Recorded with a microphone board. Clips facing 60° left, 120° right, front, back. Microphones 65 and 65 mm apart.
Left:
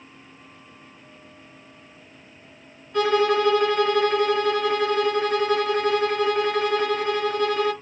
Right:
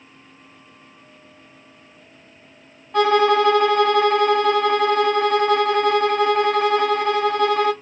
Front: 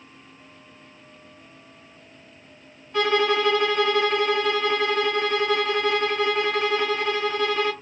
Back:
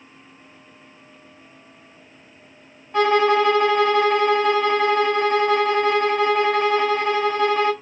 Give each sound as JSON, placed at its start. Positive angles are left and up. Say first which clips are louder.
{"t": 2.9, "sound": "a violin", "louder": "right 4 dB, back 5 dB", "azimuth_deg": -130, "distance_m": 1.3}